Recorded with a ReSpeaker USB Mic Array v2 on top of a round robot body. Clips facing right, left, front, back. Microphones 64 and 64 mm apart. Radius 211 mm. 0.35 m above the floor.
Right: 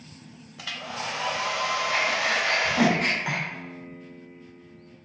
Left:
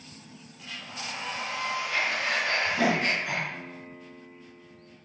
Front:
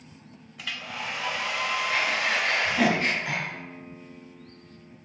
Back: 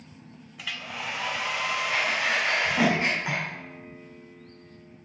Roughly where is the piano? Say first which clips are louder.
Right 2 dB, front 1 dB; right.